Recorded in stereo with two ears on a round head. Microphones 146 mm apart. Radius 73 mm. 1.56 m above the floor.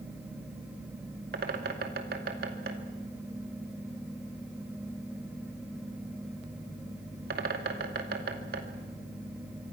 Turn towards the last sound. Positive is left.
turn(degrees=-70)  # may be behind; listen again after turning